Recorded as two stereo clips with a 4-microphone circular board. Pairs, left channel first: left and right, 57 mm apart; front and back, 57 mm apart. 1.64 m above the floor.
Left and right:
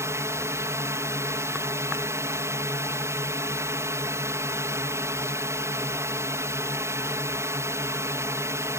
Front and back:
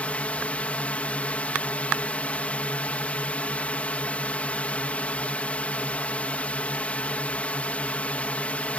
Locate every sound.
0.0 s a drone: 65° right